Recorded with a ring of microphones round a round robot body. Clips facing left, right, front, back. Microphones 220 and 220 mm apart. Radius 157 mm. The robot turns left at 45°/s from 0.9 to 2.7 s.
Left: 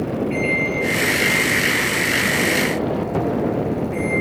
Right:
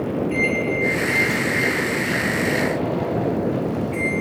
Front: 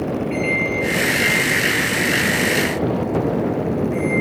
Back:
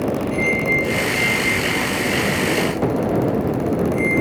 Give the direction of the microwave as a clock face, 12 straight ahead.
11 o'clock.